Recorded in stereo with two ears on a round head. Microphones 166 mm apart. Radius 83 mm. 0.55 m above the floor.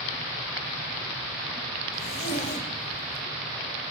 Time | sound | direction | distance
1.9 | a zipper | 40° left (ahead or behind) | 3 m